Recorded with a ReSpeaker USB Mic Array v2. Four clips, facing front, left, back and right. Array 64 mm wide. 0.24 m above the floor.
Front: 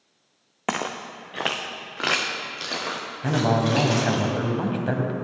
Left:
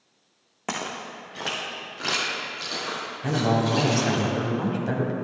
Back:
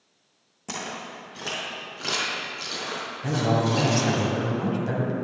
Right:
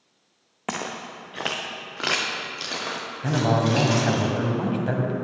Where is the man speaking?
20° right, 1.3 m.